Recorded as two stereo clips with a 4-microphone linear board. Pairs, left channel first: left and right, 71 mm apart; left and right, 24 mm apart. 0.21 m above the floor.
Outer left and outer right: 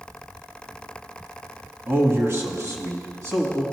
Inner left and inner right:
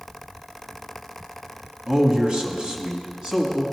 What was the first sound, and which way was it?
A man speaking, 35° right (ahead or behind).